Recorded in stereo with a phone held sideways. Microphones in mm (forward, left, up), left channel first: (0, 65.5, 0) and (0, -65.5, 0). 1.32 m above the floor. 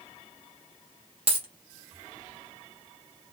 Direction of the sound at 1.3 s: 45° right (ahead or behind).